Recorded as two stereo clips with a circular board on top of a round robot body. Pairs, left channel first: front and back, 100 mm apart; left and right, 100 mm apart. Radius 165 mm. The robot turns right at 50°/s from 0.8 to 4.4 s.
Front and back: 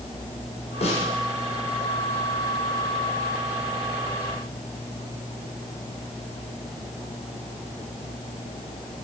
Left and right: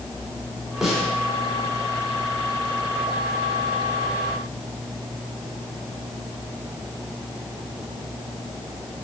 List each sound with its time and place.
0.8 s a snare drum: 5° right, 5.5 m; by 1.1 s 10° left, 5.5 m